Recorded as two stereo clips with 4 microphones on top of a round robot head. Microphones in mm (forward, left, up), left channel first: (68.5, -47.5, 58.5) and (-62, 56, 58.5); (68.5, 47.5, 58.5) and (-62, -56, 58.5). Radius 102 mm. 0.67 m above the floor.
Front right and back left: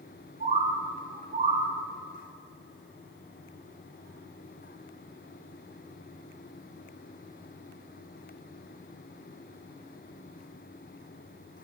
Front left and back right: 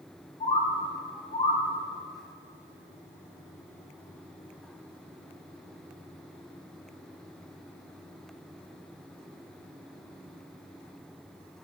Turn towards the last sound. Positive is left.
turn(degrees=95)